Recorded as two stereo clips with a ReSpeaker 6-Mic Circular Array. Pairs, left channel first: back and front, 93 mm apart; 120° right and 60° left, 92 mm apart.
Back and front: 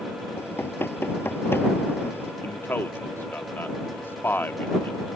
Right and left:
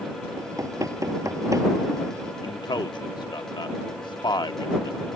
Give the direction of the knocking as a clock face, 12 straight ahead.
8 o'clock.